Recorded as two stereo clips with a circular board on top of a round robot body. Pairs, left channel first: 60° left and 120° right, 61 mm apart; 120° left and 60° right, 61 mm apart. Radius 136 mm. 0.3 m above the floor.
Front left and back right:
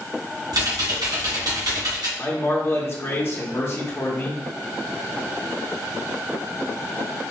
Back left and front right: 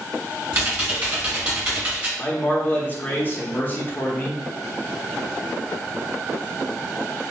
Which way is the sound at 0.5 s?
125° right.